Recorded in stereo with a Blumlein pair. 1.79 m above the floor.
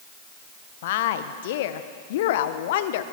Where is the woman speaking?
55° left, 1.4 m.